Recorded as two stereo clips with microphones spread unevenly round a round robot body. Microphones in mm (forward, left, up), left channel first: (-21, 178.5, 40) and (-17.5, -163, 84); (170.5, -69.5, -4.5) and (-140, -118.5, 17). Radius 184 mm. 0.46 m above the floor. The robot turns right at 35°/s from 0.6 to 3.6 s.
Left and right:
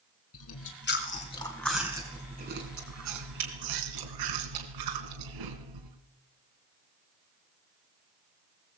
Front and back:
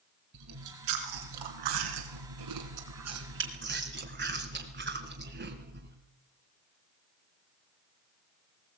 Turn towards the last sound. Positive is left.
turn(degrees=-115)